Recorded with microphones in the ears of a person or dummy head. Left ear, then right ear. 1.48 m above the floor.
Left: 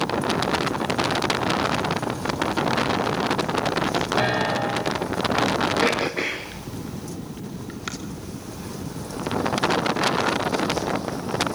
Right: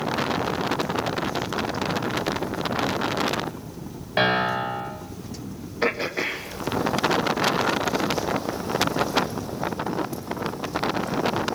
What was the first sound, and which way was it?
A piano, 75° right (ahead or behind).